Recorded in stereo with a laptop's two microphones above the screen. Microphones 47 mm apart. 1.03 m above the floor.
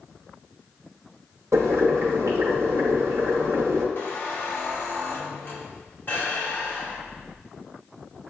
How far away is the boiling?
About 0.9 m.